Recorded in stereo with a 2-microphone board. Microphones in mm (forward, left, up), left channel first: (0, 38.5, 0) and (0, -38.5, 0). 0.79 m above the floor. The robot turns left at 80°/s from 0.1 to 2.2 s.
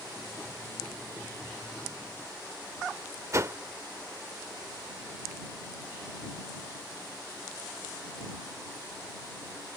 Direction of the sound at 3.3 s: 40° right (ahead or behind).